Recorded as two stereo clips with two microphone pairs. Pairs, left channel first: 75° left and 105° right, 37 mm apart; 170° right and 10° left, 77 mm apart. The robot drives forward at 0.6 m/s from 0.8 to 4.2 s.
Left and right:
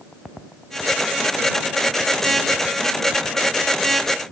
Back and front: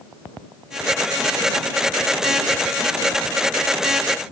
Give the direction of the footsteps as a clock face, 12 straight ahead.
I don't hear footsteps.